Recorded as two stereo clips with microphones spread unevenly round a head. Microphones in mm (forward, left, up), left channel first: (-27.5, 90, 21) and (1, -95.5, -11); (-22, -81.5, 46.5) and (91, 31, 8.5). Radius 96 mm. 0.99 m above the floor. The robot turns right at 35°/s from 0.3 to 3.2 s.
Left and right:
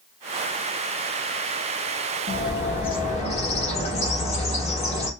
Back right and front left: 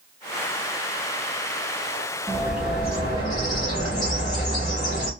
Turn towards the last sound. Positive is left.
turn(degrees=155)